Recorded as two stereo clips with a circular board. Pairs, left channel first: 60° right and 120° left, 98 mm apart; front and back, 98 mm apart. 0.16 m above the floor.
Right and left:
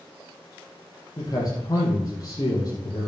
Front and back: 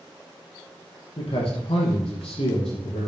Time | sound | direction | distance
1.2 | a man speaking | 10° right | 4.5 m